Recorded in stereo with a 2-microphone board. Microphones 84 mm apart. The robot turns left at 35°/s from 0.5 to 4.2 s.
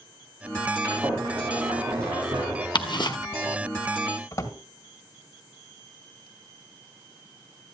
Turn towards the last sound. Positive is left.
turn(degrees=35)  # may be behind; listen again after turning